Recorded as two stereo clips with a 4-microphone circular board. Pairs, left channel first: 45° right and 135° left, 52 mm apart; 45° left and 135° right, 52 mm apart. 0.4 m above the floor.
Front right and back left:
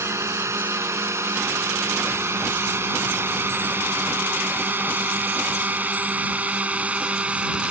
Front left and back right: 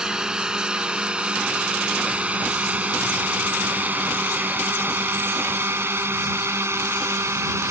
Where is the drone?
150° left; by 7.7 s 155° right.